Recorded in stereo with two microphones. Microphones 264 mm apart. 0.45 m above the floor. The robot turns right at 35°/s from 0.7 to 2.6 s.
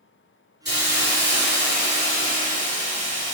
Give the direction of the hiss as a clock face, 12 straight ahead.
4 o'clock.